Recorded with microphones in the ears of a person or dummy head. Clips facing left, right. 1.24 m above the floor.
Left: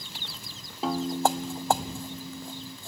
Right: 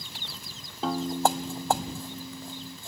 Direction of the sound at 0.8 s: Centre (ahead or behind).